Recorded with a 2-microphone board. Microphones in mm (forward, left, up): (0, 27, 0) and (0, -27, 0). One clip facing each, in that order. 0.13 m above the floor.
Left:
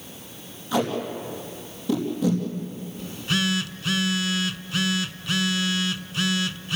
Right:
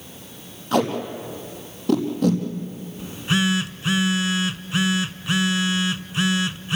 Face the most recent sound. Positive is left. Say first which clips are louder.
# right 4 dB
turn(degrees=-25)  # may be behind; listen again after turning